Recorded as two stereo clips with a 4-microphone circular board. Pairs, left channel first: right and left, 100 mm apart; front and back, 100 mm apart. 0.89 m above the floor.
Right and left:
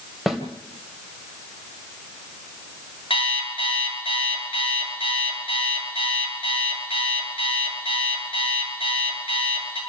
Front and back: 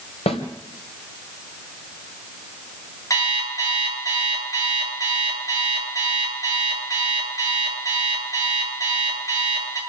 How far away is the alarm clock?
About 7.5 m.